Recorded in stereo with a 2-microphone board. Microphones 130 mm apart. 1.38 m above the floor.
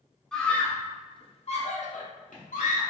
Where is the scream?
5° left (ahead or behind), 0.7 m; by 2.9 s 85° left, 1.1 m.